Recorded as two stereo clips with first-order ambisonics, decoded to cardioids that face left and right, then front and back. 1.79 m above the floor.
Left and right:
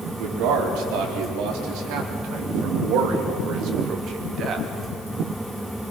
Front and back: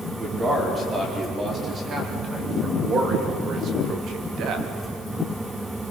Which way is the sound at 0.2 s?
105° right.